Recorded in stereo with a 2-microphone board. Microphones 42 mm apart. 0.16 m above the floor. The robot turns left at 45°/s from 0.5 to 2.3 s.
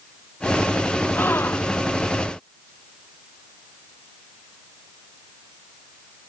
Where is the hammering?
No hammering in this recording.